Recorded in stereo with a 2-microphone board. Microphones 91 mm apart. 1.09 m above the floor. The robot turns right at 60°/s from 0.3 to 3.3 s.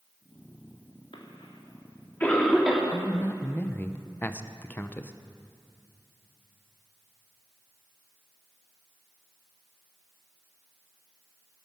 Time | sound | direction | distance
1.1 | a cough | 75° left (ahead or behind) | 3 m
2.9 | a man speaking | 20° left (ahead or behind) | 0.7 m